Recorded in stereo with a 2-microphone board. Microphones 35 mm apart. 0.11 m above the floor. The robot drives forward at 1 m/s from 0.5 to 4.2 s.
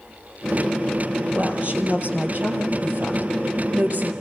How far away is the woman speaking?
About 3.5 m.